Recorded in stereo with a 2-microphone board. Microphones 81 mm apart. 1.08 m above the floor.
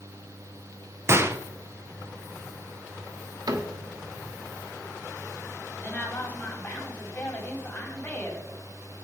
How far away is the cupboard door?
About 1.2 m.